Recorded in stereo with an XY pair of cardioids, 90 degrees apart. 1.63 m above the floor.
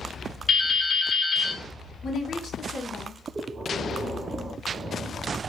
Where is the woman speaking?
70° left, 1.1 m.